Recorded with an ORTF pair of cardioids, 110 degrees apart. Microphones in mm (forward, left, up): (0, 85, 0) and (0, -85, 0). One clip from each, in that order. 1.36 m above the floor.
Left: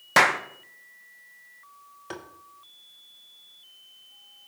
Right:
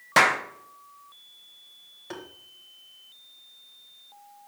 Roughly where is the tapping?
Ahead.